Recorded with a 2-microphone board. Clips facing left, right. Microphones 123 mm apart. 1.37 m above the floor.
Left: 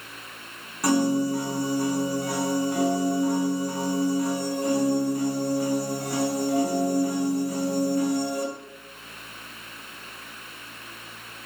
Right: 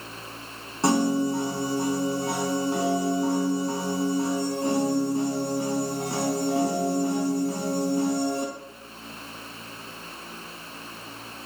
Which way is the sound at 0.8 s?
25° right (ahead or behind).